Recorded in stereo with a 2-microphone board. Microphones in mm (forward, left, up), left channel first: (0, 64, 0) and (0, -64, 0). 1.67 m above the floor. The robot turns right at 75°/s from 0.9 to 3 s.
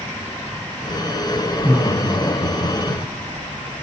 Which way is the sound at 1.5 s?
Centre (ahead or behind).